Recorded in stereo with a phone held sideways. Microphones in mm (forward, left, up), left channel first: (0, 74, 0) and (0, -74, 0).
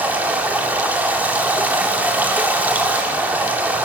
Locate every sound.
0.0 s running water: 10° right (ahead or behind), 3 m